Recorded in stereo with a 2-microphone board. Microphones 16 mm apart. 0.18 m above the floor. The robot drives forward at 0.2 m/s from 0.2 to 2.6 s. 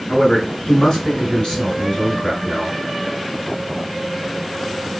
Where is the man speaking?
55° left (ahead or behind), 2.5 m; by 2.8 s 50° left (ahead or behind), 2.5 m.